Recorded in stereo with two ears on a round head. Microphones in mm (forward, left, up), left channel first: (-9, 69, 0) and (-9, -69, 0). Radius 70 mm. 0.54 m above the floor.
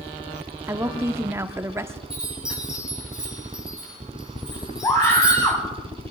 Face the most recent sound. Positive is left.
turn(degrees=15)  # may be behind; listen again after turning